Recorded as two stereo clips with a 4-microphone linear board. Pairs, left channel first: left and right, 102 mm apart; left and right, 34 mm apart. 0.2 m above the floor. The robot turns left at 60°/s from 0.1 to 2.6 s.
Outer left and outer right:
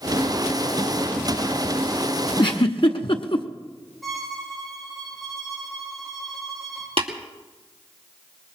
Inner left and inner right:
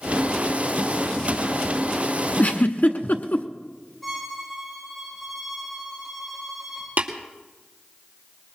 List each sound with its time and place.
2.4 s a giggle: 55° left (ahead or behind), 1.0 m; by 3.5 s 60° left (ahead or behind), 1.0 m
4.0 s a violin: centre (ahead or behind), 8.5 m
7.0 s tapping: 65° right (ahead or behind), 2.5 m